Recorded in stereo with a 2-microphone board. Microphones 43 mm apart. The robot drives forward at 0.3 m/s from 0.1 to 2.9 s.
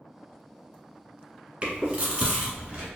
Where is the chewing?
25° right (ahead or behind), 1.0 m; by 2.9 s 20° right (ahead or behind), 1.2 m.